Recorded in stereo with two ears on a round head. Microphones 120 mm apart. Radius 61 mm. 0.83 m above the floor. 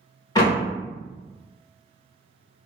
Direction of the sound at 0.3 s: 30° left (ahead or behind).